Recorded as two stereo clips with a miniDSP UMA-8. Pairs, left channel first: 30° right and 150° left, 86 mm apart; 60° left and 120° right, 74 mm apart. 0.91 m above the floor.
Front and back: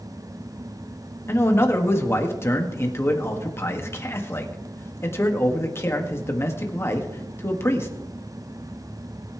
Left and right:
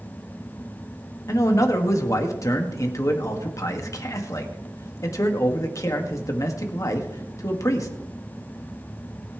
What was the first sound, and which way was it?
A man speaking, 25° left.